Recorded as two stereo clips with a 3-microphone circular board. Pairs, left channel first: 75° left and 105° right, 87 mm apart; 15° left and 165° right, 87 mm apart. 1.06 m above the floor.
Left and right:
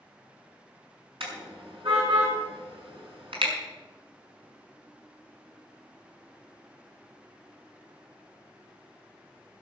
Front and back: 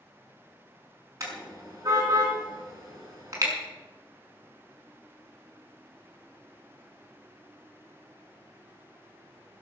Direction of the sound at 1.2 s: 110° right.